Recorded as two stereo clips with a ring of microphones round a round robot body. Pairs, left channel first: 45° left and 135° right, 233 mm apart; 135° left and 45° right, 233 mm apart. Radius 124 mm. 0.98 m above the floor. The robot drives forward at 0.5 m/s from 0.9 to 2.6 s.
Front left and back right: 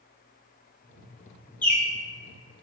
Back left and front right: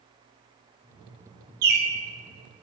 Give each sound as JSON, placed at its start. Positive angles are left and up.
{"t": 1.6, "sound": "a bird", "azimuth_deg": -35, "distance_m": 0.6}